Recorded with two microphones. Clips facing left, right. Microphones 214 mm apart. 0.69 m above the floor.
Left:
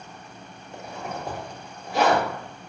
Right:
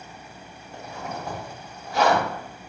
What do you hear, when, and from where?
0.7 s a zipper: 20° left (ahead or behind), 1.0 m